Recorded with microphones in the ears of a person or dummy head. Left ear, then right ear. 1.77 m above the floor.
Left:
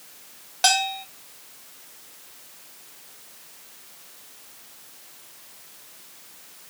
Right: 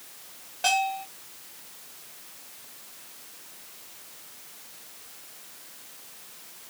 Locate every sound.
0.6 s a bell: 50° left (ahead or behind), 1.4 m